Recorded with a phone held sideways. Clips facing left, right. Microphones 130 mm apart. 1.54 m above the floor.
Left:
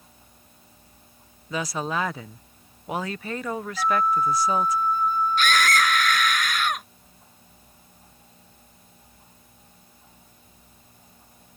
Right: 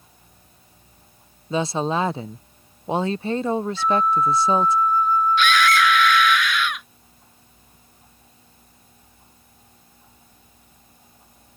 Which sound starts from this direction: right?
A woman speaking, at 1.5 s.